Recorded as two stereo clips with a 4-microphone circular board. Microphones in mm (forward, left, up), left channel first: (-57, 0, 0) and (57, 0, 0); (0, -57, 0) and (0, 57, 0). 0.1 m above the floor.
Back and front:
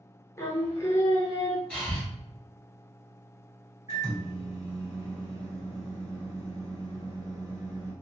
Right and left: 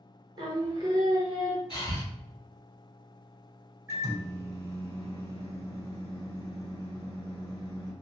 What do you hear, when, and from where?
0.4 s singing: 125° left, 0.7 m
1.7 s breathing: 105° right, 1.3 m
3.9 s a microwave: 45° left, 1.7 m